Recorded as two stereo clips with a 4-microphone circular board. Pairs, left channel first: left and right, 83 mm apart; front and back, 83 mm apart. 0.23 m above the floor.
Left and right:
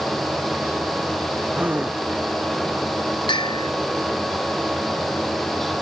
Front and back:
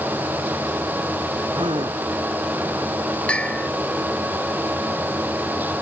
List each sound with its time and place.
1.5 s a gasp: 165° right
3.3 s a bell: 80° left